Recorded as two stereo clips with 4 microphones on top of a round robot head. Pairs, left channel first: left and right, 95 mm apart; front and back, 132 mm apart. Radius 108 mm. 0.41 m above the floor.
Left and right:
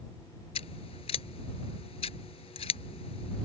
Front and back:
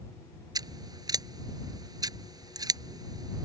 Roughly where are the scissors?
Behind left.